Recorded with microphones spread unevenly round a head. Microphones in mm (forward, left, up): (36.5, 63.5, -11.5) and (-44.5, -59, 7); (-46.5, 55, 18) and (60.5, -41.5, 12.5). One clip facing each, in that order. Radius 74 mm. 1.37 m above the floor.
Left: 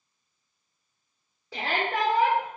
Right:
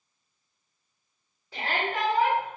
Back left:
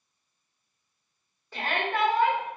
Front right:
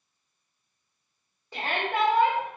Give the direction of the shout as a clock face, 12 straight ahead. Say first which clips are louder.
Left 2 dB, front right 1 dB; 11 o'clock.